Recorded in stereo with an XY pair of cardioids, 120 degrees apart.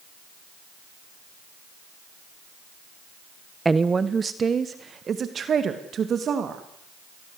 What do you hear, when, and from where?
3.6 s a woman speaking: 15° right, 0.8 m; by 6.6 s 45° right, 3 m